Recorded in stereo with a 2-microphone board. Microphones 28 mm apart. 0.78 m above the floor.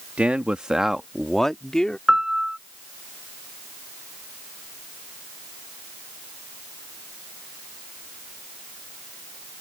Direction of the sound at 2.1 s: 20° right (ahead or behind).